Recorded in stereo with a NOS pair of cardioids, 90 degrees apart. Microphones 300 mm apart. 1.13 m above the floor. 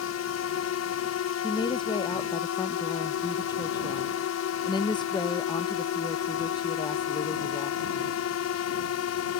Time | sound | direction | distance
0.0 | a drone | 65° left | ?
1.4 | a woman speaking | 15° left | ?